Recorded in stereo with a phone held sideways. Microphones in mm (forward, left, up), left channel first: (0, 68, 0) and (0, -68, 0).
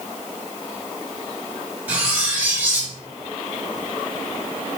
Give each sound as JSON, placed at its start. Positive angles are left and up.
{"t": 1.9, "sound": "cutlery clinking", "side_deg": -10, "distance_m": 2.0}